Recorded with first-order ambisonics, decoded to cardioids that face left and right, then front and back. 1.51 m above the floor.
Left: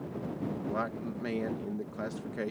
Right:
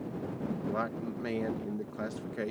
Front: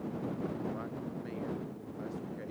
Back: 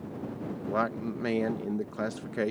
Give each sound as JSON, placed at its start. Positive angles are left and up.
{"t": 0.7, "sound": "a man speaking", "azimuth_deg": 180}